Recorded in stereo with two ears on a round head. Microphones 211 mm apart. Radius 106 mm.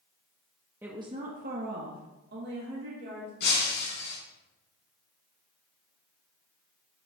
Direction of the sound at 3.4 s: 45° left (ahead or behind).